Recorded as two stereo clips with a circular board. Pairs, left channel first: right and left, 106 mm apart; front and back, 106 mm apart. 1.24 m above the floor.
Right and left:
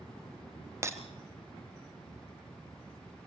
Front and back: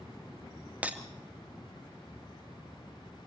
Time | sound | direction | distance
0.8 | breaking glass | 115° left | 1.3 m